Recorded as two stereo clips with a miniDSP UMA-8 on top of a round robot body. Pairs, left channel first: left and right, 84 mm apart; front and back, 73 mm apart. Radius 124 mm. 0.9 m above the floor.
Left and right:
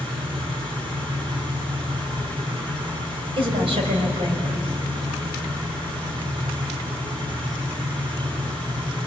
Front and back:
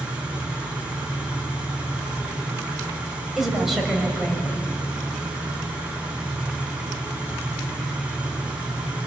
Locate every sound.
0.0 s an engine running: 110° right, 8.5 m
3.4 s a woman speaking: 95° right, 5.5 m